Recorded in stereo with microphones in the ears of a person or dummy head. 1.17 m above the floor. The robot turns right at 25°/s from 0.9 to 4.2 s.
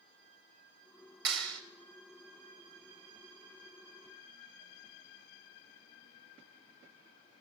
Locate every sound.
1.2 s a clap: 75° right (ahead or behind), 2.5 m; by 1.6 s 85° right, 2.5 m